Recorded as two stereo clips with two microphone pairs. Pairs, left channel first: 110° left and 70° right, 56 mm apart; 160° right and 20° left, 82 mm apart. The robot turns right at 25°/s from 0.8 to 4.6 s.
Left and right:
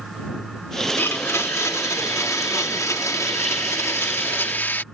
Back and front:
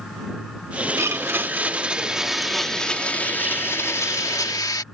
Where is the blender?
75° left; by 4.8 s 165° left.